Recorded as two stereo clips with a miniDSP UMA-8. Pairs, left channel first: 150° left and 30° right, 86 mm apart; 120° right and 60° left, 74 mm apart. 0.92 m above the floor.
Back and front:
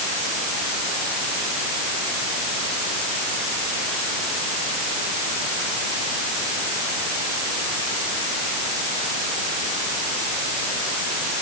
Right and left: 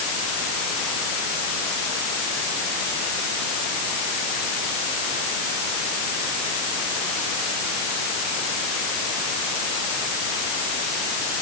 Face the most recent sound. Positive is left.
No sound to turn to.